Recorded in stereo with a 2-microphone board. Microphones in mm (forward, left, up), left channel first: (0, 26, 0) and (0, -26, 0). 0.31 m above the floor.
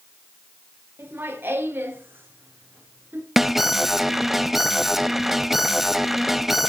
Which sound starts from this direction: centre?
An alarm, at 3.4 s.